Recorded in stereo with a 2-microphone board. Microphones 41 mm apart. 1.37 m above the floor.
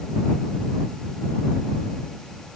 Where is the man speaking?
I don't hear a man speaking.